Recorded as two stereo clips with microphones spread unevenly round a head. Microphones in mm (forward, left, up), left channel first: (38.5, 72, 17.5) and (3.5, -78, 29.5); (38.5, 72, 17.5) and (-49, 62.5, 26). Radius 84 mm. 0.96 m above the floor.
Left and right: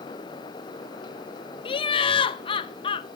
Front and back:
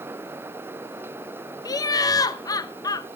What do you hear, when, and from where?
1.6 s laughter: 30° left, 0.6 m